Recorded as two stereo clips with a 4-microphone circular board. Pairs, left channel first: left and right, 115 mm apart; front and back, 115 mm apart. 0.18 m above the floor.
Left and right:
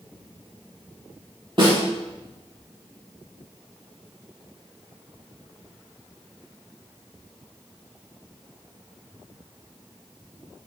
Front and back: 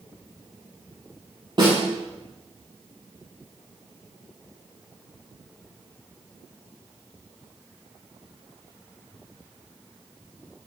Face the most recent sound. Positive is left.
turn(degrees=-135)